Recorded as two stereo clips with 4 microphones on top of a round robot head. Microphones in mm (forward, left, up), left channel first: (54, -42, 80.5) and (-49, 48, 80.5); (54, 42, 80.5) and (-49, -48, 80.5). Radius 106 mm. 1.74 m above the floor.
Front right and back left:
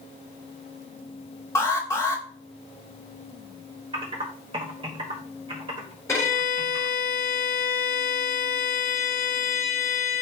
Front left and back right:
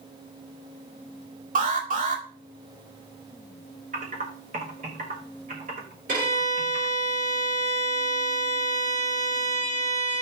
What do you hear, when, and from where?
1.6 s an alarm: 110° right, 2.5 m
3.9 s typing on a keyboard: 170° right, 1.9 m
6.1 s a violin: 110° right, 3.5 m